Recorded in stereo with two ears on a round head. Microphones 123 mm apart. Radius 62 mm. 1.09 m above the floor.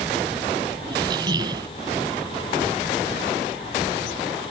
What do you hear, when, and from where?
0.8 s a squeak: 35° right (ahead or behind)